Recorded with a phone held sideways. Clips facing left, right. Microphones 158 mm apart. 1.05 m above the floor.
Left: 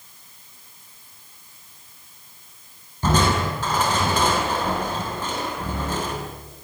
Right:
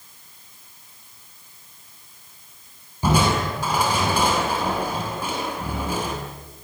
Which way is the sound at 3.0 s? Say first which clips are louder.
Even; 10° right (ahead or behind).